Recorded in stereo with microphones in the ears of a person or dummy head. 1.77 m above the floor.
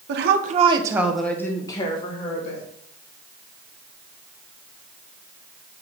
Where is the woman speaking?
65° right (ahead or behind), 1.6 m; by 2.6 s 35° left (ahead or behind), 3 m.